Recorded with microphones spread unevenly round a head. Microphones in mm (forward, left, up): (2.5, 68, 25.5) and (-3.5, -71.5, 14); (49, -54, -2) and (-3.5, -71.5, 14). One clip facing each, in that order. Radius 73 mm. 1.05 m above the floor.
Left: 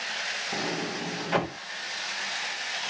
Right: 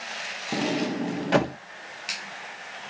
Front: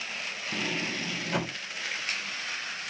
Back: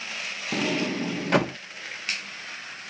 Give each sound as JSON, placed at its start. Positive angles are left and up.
{"t": 0.5, "sound": "a sliding door", "azimuth_deg": -135, "distance_m": 0.5}